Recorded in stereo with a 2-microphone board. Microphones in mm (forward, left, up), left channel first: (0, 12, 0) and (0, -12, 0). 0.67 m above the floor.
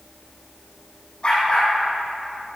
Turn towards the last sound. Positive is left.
turn(degrees=40)  # may be behind; listen again after turning